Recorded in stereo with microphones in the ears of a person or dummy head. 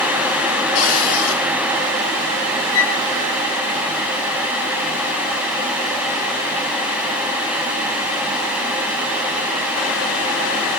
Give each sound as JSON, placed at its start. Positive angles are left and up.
{"t": 0.8, "sound": "a cupboard door", "side_deg": 70, "distance_m": 5.5}
{"t": 2.7, "sound": "a flute", "side_deg": 65, "distance_m": 2.0}